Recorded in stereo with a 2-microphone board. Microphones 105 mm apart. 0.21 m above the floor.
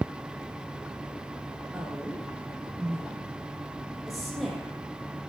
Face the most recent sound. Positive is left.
turn(degrees=5)  # may be behind; listen again after turning